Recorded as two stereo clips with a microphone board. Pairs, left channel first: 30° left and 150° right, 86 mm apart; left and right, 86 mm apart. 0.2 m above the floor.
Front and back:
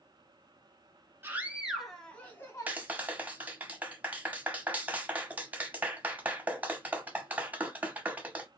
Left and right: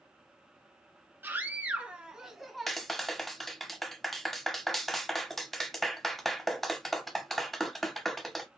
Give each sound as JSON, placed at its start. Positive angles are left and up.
{"t": 1.2, "sound": "a scream", "azimuth_deg": -120, "distance_m": 1.2}
{"t": 2.7, "sound": "a clap", "azimuth_deg": 175, "distance_m": 0.9}